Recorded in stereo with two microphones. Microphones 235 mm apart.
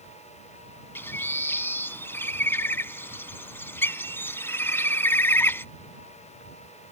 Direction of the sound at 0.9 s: 10° left (ahead or behind).